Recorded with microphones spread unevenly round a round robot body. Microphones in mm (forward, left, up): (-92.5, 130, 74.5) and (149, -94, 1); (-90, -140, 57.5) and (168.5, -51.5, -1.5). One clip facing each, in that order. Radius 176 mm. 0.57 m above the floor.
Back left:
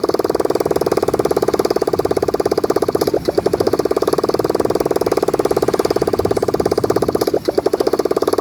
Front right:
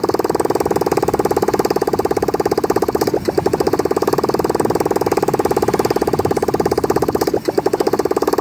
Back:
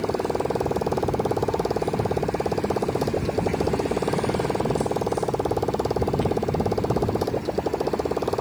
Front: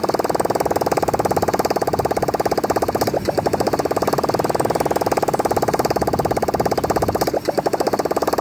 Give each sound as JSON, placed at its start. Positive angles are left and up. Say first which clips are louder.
{"t": 0.0, "sound": "a motorcycle", "louder": "even, front 5 dB", "azimuth_deg": 40}